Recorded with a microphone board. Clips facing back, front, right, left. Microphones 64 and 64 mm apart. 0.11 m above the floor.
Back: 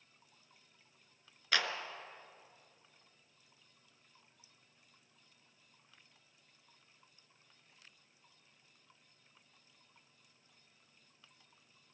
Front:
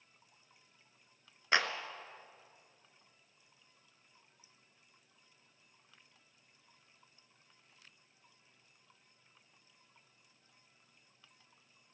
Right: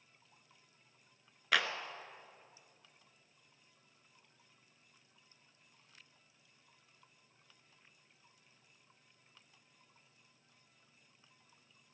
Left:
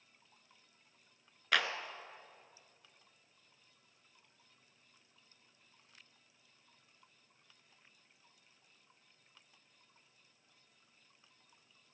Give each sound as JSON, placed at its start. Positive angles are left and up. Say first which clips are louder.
{"t": 1.5, "sound": "a clap", "louder": "front 3 dB, even", "azimuth_deg": -5, "distance_m": 0.9}